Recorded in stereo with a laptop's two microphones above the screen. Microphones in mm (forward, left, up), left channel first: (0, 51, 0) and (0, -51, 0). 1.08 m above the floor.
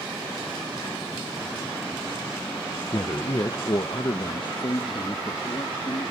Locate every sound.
2.9 s a man speaking: 35° left (ahead or behind); by 6.1 s 50° left (ahead or behind)